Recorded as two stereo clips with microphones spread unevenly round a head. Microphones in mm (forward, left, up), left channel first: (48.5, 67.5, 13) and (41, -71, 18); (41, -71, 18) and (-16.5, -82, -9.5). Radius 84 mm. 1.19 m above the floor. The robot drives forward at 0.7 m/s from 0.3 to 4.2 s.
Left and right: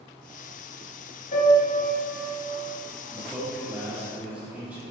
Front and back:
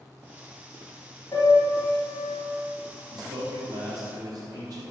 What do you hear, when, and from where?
1.3 s a piano: 65° left, 4 m; by 2.4 s 75° left, 4 m
3.1 s a man speaking: 170° right, 2 m; by 4.8 s 175° right, 3 m